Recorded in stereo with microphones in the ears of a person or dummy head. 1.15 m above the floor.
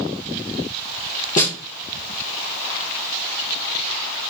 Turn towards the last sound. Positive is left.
turn(degrees=40)  # may be behind; listen again after turning